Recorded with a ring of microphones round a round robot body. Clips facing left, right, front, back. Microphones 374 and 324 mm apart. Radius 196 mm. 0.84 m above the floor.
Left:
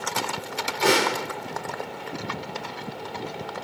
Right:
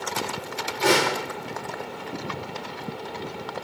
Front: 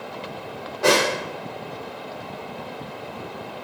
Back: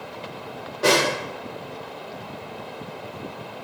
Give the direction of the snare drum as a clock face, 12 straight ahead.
8 o'clock.